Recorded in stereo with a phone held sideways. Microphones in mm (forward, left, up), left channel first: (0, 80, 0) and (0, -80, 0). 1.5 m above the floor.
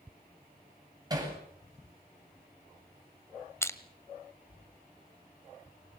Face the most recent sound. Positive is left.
turn(degrees=15)  # may be behind; listen again after turning